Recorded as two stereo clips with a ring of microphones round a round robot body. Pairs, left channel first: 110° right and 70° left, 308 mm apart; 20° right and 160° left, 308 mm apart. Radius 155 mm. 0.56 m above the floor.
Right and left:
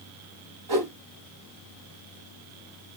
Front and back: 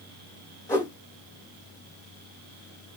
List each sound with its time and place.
0.7 s a whoosh: 60° left, 4 m